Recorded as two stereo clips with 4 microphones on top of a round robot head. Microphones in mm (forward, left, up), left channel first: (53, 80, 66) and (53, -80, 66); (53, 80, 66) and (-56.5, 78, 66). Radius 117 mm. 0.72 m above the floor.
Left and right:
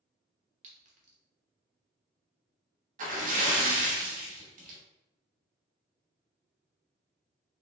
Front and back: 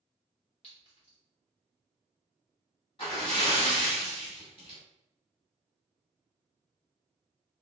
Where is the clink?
45° right, 1.0 m.